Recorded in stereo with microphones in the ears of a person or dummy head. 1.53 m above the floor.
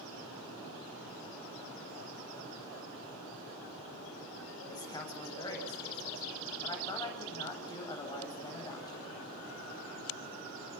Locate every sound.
4.7 s a man speaking: 20° left (ahead or behind), 8 m